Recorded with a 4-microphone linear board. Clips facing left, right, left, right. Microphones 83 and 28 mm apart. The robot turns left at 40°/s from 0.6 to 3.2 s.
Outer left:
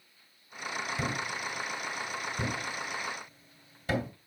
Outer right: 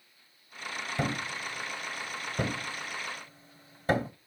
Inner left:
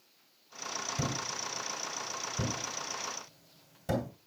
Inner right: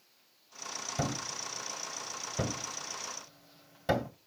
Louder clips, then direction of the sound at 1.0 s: Outer right 5 dB, inner right 3 dB; 40° right (ahead or behind).